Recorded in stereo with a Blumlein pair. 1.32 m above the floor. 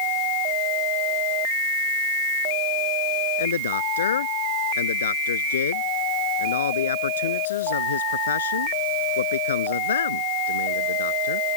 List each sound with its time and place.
3.4 s a man speaking: 70° left